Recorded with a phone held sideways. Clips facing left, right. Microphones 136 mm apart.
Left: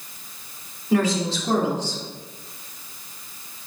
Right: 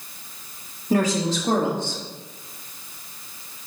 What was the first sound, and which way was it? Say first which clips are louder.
A woman speaking: even; 40° right (ahead or behind).